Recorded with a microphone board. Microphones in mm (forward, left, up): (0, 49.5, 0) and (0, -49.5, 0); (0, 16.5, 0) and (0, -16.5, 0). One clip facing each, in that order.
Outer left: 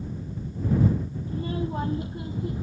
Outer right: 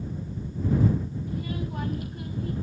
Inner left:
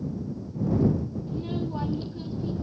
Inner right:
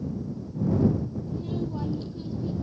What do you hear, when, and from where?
1.3 s a child speaking: 30° left (ahead or behind); by 2.6 s 20° left (ahead or behind)